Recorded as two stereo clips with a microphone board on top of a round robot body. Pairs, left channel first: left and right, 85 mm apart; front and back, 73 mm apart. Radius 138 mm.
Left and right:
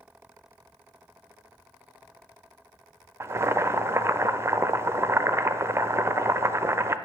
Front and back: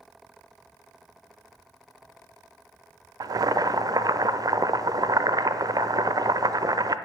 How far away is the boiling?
About 0.5 m.